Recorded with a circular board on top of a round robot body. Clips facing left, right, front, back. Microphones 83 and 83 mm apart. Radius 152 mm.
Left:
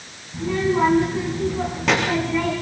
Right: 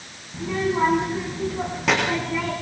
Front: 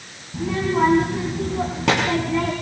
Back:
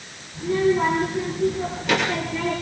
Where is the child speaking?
Straight ahead, 4.5 m.